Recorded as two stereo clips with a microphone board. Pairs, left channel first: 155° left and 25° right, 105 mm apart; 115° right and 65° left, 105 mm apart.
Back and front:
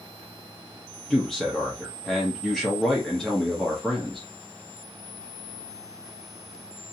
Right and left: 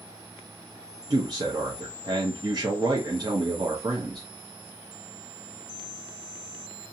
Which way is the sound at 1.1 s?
70° left.